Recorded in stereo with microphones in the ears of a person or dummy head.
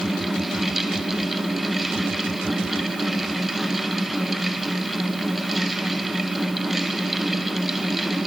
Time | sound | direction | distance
0.0 | a fan | centre (ahead or behind) | 1.3 m